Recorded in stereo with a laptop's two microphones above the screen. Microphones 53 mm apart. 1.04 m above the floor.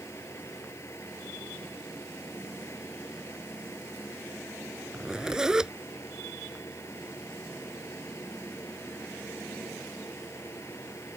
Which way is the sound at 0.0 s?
60° left (ahead or behind).